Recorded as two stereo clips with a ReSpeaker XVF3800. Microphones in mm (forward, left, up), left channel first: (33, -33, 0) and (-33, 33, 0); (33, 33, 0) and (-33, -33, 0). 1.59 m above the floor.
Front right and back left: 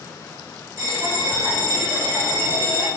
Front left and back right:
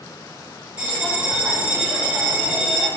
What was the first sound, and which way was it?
A bell, 160° left.